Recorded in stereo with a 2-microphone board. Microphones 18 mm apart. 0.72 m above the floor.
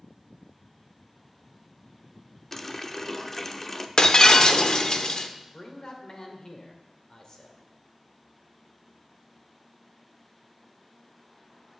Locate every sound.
2.5 s a running tap: 20° left (ahead or behind), 0.9 m
4.0 s breaking glass: 45° left (ahead or behind), 1.1 m
5.5 s a man speaking: 40° left (ahead or behind), 2.5 m